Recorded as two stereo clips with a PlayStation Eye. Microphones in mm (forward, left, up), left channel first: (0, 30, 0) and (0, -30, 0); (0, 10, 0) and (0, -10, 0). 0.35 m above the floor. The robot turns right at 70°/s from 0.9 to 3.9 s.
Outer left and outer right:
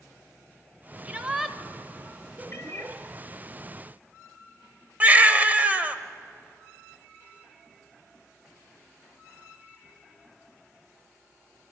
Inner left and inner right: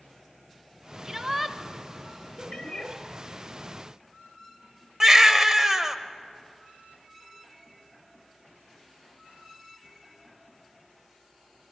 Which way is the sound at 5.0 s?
30° right (ahead or behind).